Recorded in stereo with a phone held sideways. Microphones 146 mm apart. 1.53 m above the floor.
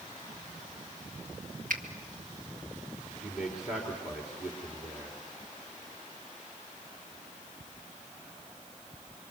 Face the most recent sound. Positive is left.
turn(degrees=0)  # may be behind; listen again after turning